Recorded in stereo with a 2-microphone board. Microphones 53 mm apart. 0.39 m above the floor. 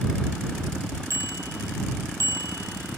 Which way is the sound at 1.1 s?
65° right (ahead or behind).